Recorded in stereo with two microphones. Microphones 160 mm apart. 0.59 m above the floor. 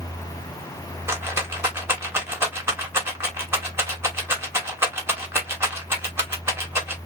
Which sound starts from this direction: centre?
A rattle, at 1.1 s.